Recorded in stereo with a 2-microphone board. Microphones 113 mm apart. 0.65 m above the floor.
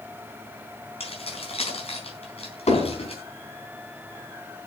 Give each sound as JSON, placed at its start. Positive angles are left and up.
{"t": 1.0, "sound": "keys jangling", "side_deg": 65, "distance_m": 4.0}
{"t": 2.7, "sound": "hammering", "side_deg": 80, "distance_m": 6.0}